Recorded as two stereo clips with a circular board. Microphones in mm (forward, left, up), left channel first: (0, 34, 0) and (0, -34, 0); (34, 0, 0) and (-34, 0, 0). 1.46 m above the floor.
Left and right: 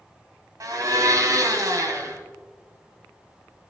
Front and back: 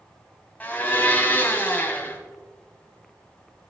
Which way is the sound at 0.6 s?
65° right.